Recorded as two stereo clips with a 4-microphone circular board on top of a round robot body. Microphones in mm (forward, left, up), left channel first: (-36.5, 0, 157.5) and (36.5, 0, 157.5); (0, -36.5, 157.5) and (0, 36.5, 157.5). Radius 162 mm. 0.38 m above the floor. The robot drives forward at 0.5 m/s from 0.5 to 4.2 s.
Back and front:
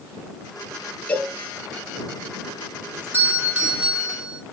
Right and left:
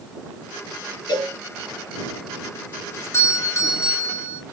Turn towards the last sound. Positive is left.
turn(degrees=-75)